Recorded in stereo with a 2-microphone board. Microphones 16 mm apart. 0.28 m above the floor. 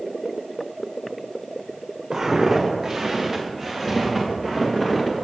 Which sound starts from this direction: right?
Footsteps, at 2.1 s.